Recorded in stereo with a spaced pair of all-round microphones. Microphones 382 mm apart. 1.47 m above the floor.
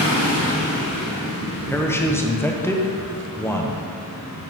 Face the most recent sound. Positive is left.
turn(degrees=5)  # may be behind; listen again after turning